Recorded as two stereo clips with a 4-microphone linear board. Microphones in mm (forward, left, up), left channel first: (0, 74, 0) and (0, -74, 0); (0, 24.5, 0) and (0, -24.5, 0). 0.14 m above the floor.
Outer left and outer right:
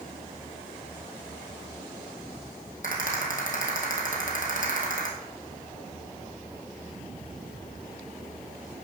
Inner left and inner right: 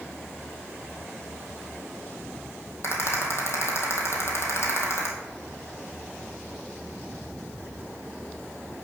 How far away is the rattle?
About 2.0 m.